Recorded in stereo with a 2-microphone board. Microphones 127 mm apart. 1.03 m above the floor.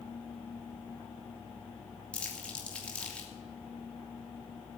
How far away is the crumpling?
About 2.5 m.